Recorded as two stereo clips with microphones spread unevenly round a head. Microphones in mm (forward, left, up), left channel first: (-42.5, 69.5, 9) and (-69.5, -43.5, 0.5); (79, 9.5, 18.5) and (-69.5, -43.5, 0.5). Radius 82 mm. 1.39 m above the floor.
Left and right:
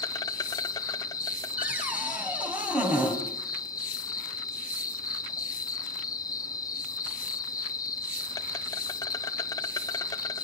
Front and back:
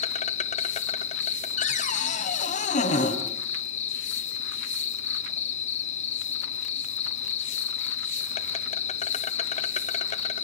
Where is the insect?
30° left, 0.9 m.